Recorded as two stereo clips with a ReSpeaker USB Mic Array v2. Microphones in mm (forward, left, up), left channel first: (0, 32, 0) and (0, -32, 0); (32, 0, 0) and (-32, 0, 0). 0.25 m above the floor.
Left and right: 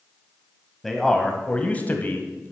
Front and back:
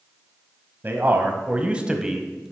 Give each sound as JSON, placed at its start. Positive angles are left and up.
{"t": 0.8, "sound": "a man speaking", "azimuth_deg": 175, "distance_m": 1.3}